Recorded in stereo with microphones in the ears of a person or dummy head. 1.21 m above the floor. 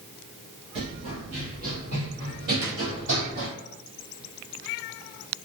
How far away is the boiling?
No boiling in this recording.